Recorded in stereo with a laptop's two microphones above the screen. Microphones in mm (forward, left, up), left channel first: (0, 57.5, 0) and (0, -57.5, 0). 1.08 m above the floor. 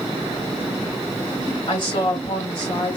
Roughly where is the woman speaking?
Left.